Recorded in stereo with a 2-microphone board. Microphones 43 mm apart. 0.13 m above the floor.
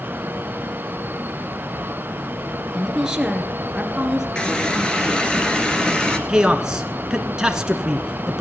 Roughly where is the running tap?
Centre.